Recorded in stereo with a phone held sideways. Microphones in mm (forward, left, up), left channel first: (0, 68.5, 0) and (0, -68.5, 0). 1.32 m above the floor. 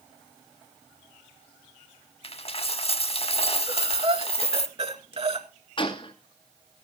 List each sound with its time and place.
2.2 s a dropped coin: 45° left (ahead or behind), 1.2 m
3.7 s breathing: 45° right (ahead or behind), 1.9 m
5.8 s a gunshot: 40° left (ahead or behind), 2.0 m